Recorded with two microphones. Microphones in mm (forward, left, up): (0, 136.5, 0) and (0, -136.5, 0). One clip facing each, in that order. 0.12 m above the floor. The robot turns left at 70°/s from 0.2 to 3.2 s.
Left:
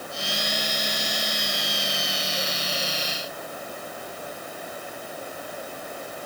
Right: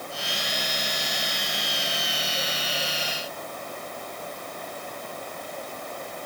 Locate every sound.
Only background noise.